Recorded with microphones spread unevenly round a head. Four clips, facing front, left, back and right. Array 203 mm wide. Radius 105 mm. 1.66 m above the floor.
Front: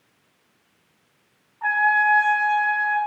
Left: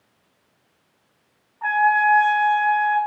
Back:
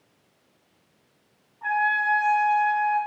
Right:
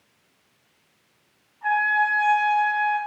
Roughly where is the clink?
No clink in this recording.